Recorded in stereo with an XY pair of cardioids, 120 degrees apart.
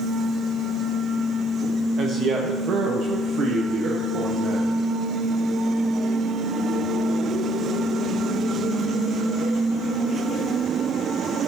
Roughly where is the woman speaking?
Ahead right.